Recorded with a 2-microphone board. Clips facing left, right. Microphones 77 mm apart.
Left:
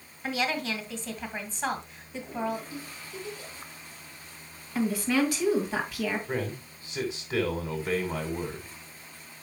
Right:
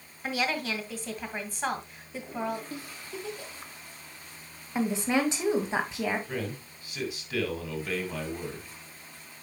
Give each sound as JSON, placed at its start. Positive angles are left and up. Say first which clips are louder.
{"t": 0.2, "sound": "a woman speaking", "louder": "even", "side_deg": -5, "distance_m": 1.7}
{"t": 2.7, "sound": "a giggle", "louder": "right 1 dB", "side_deg": -60, "distance_m": 1.5}
{"t": 4.8, "sound": "a woman speaking", "louder": "left 1 dB", "side_deg": -25, "distance_m": 1.9}
{"t": 6.3, "sound": "a man speaking", "louder": "left 3 dB", "side_deg": 25, "distance_m": 2.0}